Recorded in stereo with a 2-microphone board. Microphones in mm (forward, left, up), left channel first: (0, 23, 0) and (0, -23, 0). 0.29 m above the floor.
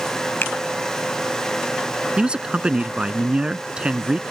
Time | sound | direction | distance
0.4 | a finger snap | 50° left (ahead or behind) | ?
2.2 | a man speaking | 20° right (ahead or behind) | ?